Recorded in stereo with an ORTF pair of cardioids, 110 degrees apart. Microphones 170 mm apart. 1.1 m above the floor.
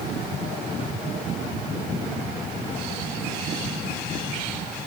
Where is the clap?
No clap in this recording.